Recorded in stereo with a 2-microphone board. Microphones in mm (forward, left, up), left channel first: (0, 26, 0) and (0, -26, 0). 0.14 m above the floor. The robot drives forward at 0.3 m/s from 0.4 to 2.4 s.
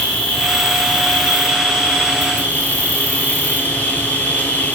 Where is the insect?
20° left (ahead or behind), 1.2 m; by 4.8 s 35° left (ahead or behind), 0.7 m.